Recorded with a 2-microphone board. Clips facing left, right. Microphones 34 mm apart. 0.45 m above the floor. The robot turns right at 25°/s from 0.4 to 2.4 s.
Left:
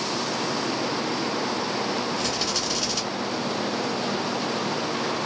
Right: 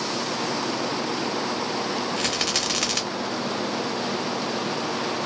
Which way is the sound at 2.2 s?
65° right (ahead or behind).